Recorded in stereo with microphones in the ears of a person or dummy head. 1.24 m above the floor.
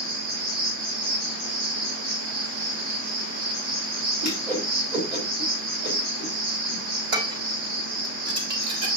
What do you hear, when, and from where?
0.0 s an insect: 60° right (ahead or behind), 1.7 m
4.2 s a whoosh: 30° right (ahead or behind), 3.5 m
7.1 s dishes clattering: 65° right (ahead or behind), 3 m